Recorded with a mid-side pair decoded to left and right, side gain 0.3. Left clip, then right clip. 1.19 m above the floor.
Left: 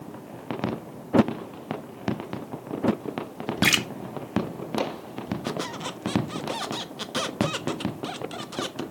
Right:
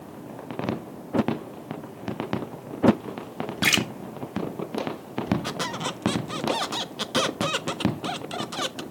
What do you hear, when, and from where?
3.6 s a splash: 15° left, 2.0 m
5.4 s a squeak: 45° right, 1.0 m